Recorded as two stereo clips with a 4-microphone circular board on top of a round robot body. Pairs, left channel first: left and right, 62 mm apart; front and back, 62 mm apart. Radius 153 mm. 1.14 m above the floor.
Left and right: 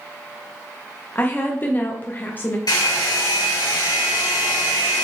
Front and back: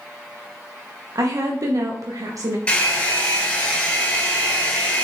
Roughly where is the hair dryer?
Left.